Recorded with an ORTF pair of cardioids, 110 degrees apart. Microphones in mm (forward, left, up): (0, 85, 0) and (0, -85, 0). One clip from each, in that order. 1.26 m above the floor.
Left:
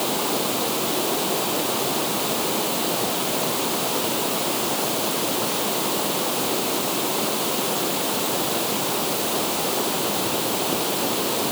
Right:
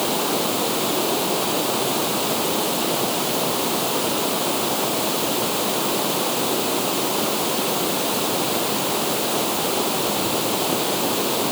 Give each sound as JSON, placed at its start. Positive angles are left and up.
{"t": 0.0, "sound": "running water", "azimuth_deg": -10}